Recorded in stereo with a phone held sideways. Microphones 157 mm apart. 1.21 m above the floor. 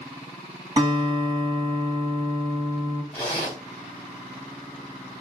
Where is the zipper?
40° left (ahead or behind), 2.5 m.